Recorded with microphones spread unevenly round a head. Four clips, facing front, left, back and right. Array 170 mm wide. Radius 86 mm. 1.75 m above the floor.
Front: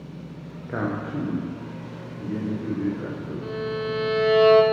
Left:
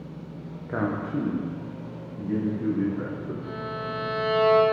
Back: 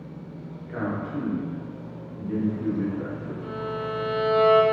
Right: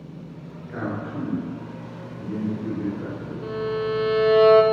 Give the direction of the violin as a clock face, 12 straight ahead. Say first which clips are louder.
Right 7 dB, front 3 dB; 2 o'clock.